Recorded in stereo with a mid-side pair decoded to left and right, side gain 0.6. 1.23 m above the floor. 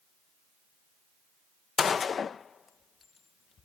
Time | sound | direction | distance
1.8 | a gunshot | 35° left | ?